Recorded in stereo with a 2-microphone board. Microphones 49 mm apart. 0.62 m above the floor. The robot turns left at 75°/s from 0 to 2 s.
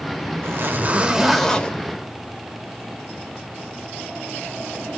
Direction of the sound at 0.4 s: 115° right.